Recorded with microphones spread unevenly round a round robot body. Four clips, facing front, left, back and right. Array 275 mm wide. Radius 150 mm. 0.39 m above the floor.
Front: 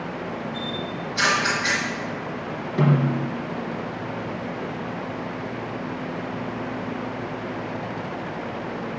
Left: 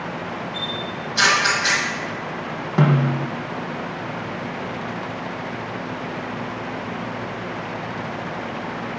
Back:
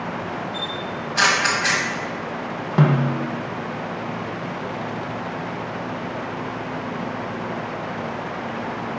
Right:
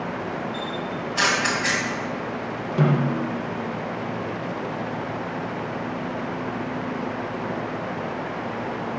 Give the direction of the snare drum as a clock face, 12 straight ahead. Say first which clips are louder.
Left 2 dB, back 2 dB; 7 o'clock.